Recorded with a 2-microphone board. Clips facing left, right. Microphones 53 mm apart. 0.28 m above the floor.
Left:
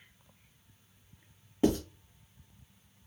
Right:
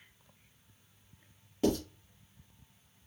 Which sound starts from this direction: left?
Writing, at 1.6 s.